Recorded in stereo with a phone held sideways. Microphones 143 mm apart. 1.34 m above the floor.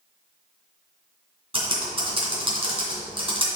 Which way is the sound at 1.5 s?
40° right (ahead or behind).